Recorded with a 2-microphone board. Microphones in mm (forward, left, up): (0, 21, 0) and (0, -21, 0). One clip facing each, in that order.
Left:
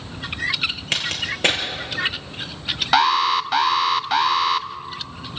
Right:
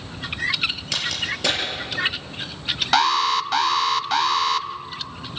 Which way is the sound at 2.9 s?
10° left (ahead or behind).